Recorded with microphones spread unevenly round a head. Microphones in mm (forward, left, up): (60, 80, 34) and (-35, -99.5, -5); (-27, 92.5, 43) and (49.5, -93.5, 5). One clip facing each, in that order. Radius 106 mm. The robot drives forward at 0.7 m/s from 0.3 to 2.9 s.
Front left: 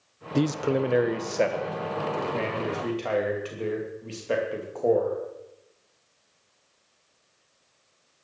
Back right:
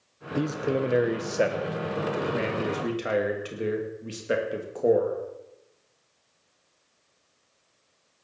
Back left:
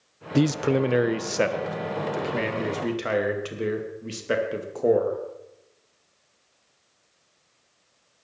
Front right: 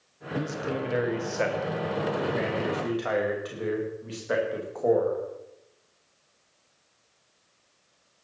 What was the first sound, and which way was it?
A man speaking, 125° left.